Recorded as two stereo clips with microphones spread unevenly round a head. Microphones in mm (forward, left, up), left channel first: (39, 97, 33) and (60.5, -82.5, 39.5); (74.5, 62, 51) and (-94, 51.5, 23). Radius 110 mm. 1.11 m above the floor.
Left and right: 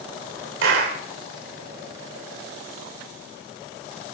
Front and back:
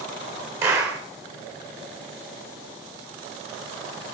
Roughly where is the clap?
Right.